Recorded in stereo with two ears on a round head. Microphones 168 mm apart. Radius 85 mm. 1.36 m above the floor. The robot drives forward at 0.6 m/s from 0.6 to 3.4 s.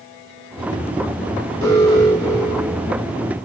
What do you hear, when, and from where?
1.6 s an alarm: 60° right (ahead or behind), 8 m; by 2.9 s 55° right (ahead or behind), 8 m